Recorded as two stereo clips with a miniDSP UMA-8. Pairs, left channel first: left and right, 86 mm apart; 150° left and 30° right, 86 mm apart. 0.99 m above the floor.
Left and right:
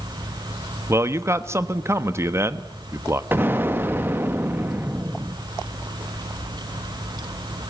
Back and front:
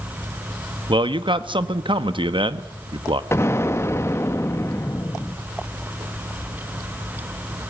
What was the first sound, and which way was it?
A man speaking, 35° right.